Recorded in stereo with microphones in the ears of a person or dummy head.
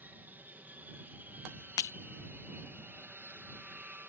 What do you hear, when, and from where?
0.0 s an aircraft: 5° right (ahead or behind)
1.8 s breaking glass: 25° left (ahead or behind)